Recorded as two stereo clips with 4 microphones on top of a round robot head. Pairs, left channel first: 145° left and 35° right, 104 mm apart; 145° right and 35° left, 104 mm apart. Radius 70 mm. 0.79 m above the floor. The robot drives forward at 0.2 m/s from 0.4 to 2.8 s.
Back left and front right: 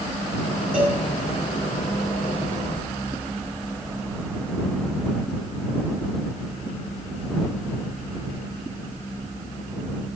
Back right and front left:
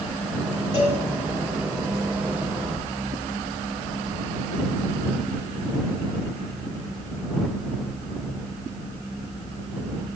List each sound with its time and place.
0.7 s a cowbell: 110° right, 8.5 m